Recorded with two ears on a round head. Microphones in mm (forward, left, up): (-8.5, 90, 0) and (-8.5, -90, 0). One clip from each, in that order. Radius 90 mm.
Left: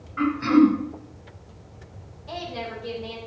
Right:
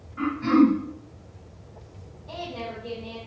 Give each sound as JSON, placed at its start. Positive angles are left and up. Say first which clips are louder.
{"t": 0.2, "sound": "throat clearing", "louder": "left 2 dB", "side_deg": 45, "distance_m": 2.5}
{"t": 2.3, "sound": "a woman speaking", "louder": "left 2 dB", "side_deg": 70, "distance_m": 4.0}